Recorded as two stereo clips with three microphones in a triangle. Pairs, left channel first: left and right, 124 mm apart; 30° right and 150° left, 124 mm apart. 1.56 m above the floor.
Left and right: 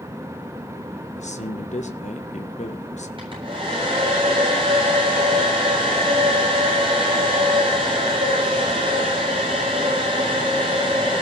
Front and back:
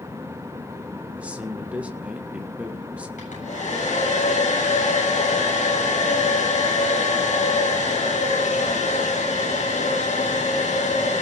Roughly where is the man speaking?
Left.